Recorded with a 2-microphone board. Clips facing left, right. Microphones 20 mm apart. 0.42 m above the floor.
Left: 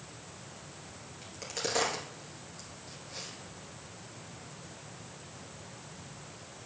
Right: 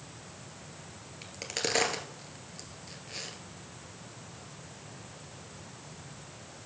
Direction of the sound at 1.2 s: 40° right (ahead or behind).